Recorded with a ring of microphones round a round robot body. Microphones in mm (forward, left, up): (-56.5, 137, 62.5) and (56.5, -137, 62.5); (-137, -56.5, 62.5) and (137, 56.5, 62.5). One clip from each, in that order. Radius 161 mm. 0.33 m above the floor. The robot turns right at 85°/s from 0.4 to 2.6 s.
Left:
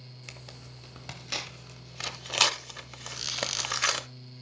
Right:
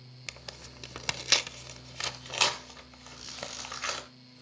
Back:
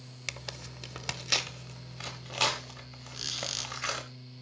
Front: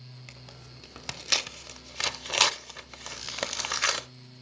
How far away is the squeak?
About 2 m.